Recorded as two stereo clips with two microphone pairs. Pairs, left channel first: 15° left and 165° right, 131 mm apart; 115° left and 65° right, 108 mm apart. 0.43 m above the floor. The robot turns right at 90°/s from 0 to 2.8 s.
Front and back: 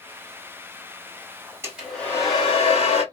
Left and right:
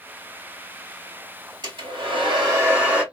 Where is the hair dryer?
100° right, 2.5 m; by 3.0 s 5° left, 2.5 m.